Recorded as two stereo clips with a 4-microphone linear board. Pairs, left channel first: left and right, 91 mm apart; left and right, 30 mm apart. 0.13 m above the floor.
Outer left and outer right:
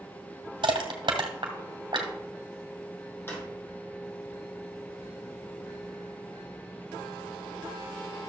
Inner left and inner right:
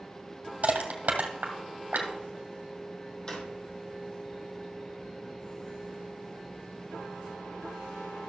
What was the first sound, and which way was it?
Crushing, 70° right (ahead or behind).